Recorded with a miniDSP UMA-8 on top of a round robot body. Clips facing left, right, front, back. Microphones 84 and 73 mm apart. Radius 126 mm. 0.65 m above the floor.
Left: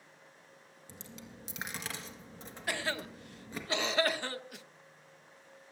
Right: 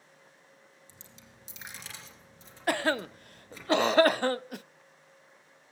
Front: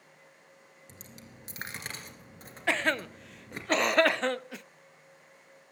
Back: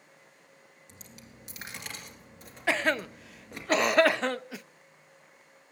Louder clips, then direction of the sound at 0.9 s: Left 6 dB, front 1 dB; 55° left.